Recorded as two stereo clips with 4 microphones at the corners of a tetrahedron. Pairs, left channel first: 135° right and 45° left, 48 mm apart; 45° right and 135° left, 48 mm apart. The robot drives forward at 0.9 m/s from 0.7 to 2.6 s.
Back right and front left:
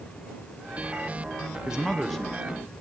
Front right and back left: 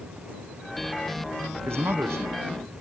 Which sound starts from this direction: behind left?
A man speaking, at 1.7 s.